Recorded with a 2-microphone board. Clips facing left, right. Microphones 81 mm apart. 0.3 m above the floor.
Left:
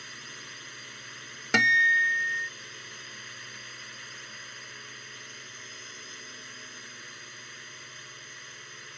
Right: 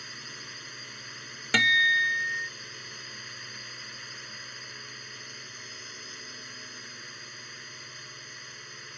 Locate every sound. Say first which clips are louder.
0.0 s a drone: right 1 dB; centre (ahead or behind)
1.5 s a guitar: left 1 dB; 15° left (ahead or behind)